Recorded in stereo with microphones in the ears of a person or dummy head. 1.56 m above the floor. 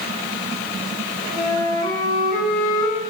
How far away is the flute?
About 5.5 m.